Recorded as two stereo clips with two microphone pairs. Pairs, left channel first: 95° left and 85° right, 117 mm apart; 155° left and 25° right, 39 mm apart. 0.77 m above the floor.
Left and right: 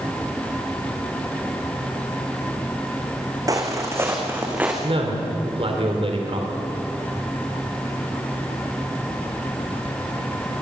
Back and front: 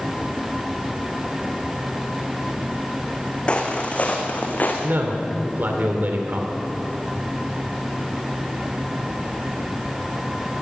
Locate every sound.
3.5 s footsteps: 140° right, 3 m; by 4.7 s 160° right, 3.5 m
4.8 s a man speaking: 55° right, 3 m